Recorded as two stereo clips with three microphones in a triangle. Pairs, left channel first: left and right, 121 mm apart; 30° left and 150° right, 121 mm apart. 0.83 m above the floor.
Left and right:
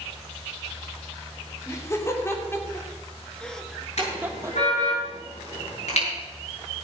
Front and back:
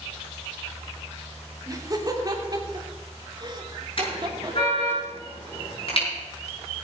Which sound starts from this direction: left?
A car horn, at 4.0 s.